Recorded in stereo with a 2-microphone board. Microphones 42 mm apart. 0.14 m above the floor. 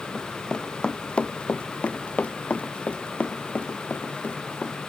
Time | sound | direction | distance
0.1 | running footsteps | 15° left (ahead or behind) | ?